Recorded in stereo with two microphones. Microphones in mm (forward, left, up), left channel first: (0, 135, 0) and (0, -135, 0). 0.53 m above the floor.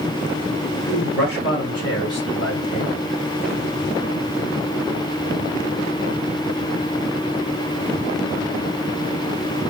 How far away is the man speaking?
About 1.9 m.